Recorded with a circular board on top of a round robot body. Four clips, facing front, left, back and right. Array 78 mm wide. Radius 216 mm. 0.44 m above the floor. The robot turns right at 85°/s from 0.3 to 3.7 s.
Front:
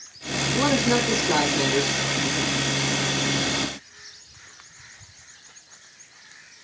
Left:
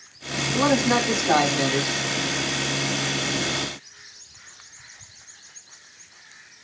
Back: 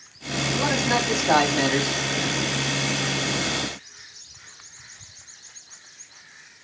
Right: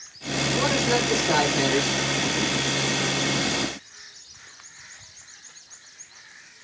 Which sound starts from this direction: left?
A man speaking, at 0.5 s.